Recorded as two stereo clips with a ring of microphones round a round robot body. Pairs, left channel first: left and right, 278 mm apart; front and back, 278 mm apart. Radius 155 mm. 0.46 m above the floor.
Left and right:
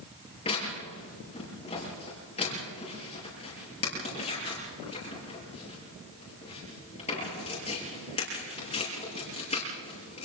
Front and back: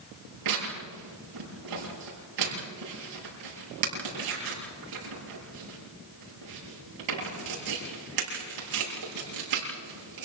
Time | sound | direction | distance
0.5 | tearing paper | 165° left | 8.5 m